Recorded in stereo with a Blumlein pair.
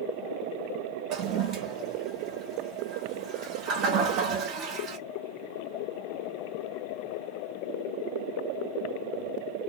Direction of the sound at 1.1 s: 35° right.